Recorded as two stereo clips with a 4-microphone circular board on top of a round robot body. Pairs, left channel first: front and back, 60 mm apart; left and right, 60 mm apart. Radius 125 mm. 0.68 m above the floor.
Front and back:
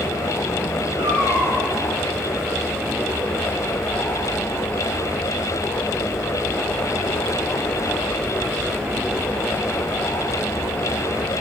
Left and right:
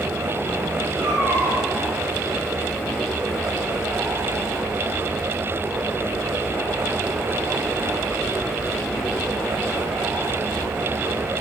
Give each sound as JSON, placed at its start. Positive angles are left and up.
{"t": 1.0, "sound": "a cat meowing", "azimuth_deg": -160, "distance_m": 7.0}